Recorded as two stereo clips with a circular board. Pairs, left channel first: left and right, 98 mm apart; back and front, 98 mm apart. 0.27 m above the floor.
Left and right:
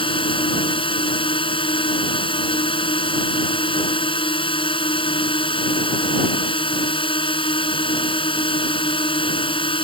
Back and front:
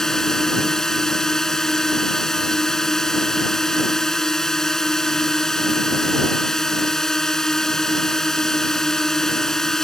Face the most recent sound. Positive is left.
turn(degrees=95)